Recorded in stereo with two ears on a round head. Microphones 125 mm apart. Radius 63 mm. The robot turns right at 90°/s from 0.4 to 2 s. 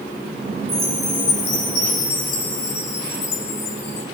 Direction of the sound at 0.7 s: 30° right.